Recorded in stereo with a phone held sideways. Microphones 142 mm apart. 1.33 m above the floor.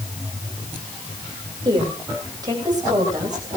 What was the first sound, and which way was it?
A woman speaking, 30° right (ahead or behind).